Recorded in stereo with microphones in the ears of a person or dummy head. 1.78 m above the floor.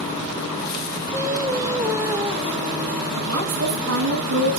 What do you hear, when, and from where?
1.1 s singing: 20° right (ahead or behind), 1.5 m
3.2 s a woman speaking: 85° right, 8 m